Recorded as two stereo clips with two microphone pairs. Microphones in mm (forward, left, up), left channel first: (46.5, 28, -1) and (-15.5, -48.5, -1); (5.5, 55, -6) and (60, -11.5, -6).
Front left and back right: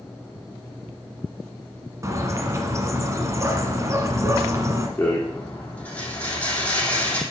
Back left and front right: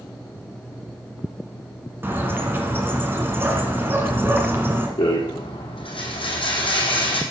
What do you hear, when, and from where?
2.0 s a bird: 95° right, 1.7 m
5.0 s a rattle: 125° left, 3 m